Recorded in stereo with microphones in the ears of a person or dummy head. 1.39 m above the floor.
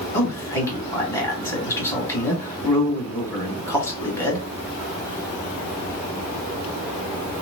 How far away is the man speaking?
About 1.7 m.